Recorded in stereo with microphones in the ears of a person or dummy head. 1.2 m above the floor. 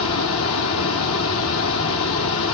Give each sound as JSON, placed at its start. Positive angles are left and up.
{"t": 0.0, "sound": "running water", "side_deg": 80, "distance_m": 1.2}